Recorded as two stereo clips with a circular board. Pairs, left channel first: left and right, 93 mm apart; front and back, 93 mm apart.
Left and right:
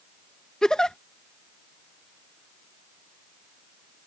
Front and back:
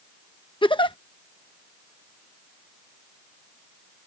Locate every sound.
0.6 s a giggle: 10° left